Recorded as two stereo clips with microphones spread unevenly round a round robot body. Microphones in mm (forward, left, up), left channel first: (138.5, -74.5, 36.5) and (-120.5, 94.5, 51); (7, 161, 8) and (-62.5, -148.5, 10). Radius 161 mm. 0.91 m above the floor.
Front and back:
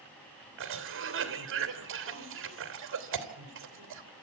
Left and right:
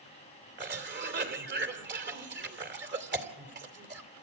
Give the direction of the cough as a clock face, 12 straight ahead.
5 o'clock.